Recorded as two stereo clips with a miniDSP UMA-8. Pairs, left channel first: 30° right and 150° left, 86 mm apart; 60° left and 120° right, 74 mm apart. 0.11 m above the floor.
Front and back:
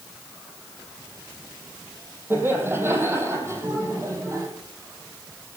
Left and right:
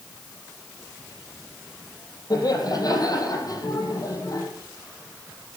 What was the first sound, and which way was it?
Laughter, 85° left.